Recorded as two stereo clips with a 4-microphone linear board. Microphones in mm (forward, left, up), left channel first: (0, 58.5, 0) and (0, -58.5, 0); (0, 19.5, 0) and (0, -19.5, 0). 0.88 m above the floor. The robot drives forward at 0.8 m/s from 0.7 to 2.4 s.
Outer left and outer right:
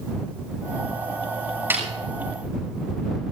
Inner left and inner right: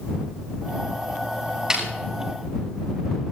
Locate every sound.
1.7 s a snare drum: 20° right (ahead or behind), 8.5 m